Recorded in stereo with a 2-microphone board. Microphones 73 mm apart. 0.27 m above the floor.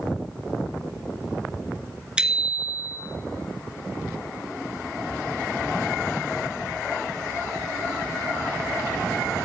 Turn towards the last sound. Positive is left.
turn(degrees=-15)  # may be behind; listen again after turning